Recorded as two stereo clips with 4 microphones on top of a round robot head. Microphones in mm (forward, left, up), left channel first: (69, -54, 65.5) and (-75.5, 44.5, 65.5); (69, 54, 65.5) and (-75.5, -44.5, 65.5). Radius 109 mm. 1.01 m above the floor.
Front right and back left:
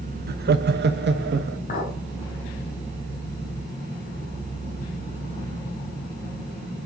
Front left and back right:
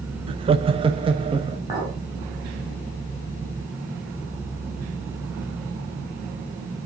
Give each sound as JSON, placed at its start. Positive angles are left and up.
{"t": 0.3, "sound": "laughter", "azimuth_deg": 160, "distance_m": 0.9}
{"t": 1.7, "sound": "a clink", "azimuth_deg": -75, "distance_m": 5.5}